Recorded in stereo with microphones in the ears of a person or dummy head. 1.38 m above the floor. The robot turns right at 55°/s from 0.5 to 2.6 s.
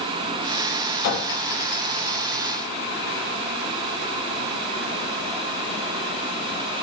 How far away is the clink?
About 1.1 m.